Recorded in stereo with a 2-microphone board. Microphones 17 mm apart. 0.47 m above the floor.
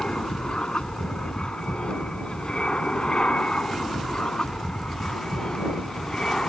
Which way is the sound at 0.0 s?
55° left (ahead or behind).